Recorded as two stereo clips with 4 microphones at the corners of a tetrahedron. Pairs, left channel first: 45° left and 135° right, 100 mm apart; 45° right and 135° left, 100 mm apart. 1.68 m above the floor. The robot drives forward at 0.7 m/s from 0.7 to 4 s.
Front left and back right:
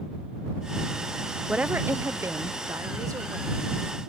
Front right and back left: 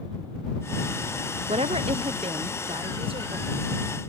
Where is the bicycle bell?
I don't hear a bicycle bell.